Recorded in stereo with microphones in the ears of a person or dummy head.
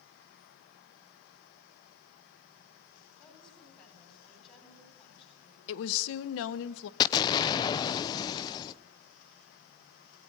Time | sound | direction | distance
3.2 | a woman speaking | 25° left (ahead or behind) | 9 m
5.7 | a woman speaking | 70° left (ahead or behind) | 0.9 m
7.0 | an explosion | 20° left (ahead or behind) | 0.7 m